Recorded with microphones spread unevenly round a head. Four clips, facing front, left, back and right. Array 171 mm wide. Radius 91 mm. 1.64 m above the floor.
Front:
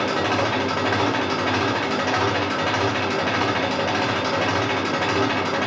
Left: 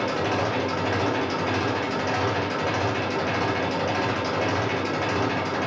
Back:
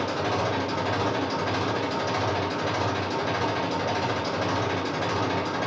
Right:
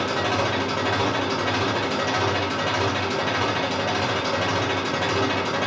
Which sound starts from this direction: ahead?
An engine running, at 0.0 s.